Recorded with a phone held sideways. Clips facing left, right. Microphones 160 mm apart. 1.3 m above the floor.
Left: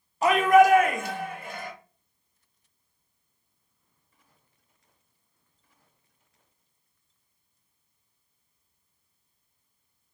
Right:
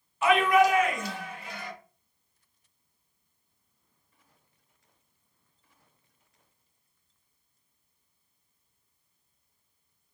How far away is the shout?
About 0.6 m.